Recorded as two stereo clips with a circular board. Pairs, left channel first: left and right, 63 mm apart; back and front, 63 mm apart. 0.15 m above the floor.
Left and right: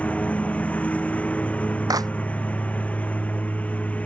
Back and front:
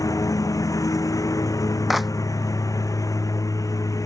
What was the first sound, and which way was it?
A lawn mower, 160° left.